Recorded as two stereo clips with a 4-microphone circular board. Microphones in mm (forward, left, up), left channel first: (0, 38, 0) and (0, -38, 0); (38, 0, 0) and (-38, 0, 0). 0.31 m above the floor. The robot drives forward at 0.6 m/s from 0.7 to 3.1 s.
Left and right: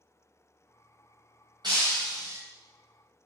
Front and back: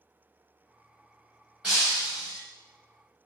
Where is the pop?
I don't hear a pop.